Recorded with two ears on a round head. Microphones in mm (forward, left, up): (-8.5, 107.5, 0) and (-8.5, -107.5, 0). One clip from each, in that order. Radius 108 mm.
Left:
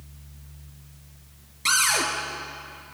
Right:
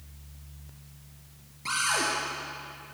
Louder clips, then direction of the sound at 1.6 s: Left 5 dB; 80° left.